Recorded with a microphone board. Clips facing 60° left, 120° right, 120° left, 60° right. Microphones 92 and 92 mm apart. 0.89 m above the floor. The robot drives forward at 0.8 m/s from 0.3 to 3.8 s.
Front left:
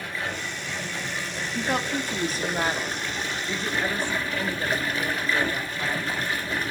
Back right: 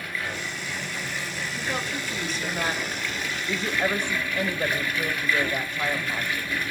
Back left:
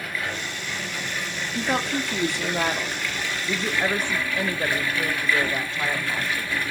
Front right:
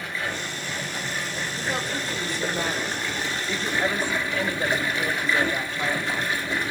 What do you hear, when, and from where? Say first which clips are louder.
0.0 s running water: front left 1 dB, even; 5° left, 4.5 m
1.6 s a woman speaking: front left 5 dB, back left 6 dB; 85° left, 1.7 m; by 3.0 s 120° left, 2.0 m
3.5 s a woman speaking: back right 3 dB, back left 2 dB; 175° left, 0.9 m; by 6.5 s straight behind, 1.1 m